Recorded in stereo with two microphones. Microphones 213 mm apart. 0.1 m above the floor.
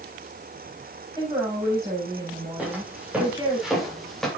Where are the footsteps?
5° right (ahead or behind), 5.5 m; by 4.3 s centre (ahead or behind), 4 m.